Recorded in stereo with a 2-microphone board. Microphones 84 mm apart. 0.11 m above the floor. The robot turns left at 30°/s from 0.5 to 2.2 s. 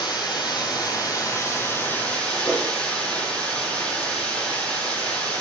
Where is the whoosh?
35° left (ahead or behind), 2.0 m.